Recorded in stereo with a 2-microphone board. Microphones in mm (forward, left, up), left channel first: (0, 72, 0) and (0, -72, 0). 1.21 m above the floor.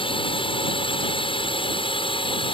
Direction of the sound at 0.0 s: 40° left (ahead or behind).